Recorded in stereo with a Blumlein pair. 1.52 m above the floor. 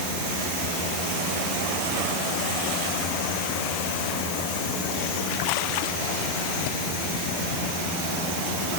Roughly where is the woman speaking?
I don't hear a woman speaking.